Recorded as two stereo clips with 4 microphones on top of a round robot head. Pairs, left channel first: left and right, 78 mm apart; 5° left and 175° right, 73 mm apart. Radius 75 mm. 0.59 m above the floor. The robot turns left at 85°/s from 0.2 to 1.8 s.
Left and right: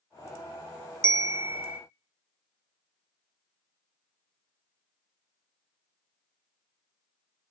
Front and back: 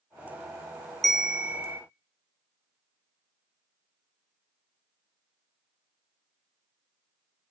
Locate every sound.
1.0 s a bell: 85° right, 0.7 m; by 1.8 s 145° right, 0.7 m